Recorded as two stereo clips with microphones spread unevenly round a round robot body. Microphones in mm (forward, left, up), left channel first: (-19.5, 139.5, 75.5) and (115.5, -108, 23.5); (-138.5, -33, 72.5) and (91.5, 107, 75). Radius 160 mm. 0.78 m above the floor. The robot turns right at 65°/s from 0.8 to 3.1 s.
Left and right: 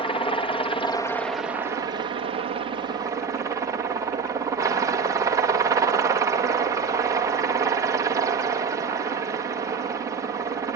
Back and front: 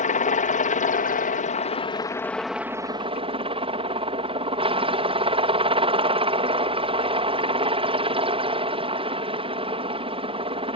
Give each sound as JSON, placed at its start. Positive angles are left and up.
{"t": 0.0, "sound": "a helicopter", "azimuth_deg": -165}